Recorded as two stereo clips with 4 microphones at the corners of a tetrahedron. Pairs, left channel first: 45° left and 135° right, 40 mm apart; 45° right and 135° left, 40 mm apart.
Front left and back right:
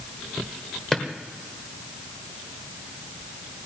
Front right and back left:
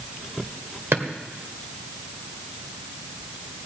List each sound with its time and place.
0.9 s a drawer: 120° left, 1.6 m